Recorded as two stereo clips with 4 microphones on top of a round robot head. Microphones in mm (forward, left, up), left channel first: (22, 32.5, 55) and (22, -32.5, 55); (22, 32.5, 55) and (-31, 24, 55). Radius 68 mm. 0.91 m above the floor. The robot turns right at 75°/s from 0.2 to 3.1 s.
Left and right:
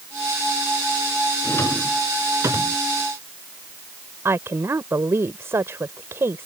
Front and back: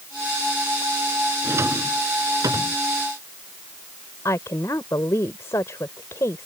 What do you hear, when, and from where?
1.4 s a drawer: 140° left; by 2.8 s 120° right
4.2 s a woman speaking: 40° right